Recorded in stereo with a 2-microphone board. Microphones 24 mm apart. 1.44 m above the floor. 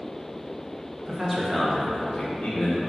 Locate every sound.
1.1 s a man speaking: 20° right (ahead or behind), 0.7 m; by 2.8 s 55° left (ahead or behind), 0.8 m